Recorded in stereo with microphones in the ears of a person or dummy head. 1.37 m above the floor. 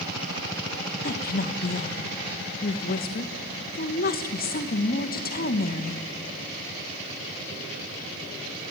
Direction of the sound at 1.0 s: 50° left (ahead or behind).